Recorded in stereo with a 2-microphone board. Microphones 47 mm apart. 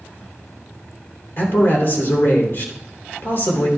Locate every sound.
1.4 s a man speaking: 50° left (ahead or behind), 3 m